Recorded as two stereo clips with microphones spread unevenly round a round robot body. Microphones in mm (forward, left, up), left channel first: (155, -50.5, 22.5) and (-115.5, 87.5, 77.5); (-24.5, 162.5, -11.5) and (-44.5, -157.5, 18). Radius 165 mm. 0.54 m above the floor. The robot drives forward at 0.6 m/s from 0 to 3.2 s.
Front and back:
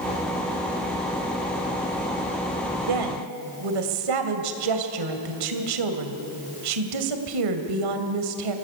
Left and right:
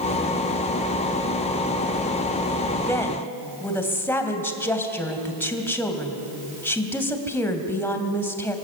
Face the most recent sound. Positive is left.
turn(degrees=170)